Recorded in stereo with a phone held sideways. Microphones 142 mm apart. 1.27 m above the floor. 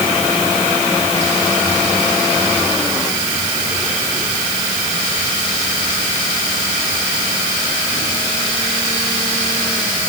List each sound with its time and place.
Only background noise.